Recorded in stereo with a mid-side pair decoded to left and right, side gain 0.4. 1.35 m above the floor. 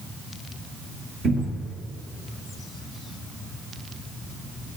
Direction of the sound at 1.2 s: 70° right.